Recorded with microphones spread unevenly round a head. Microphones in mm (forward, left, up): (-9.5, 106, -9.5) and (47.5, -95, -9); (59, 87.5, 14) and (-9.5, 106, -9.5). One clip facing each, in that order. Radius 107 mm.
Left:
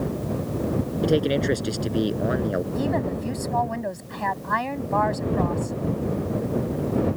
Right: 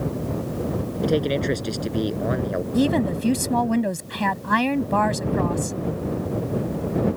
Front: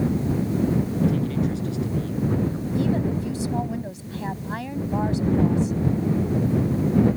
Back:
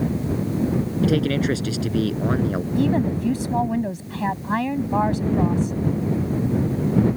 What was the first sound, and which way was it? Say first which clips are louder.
A man speaking: even, back 3 dB; 170° right.